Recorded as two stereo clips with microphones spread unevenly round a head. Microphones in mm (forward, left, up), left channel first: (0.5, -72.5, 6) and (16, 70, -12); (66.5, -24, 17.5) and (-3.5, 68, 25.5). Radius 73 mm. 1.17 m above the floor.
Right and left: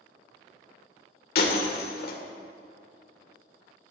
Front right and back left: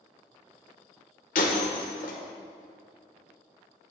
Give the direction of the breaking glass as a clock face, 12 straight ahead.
3 o'clock.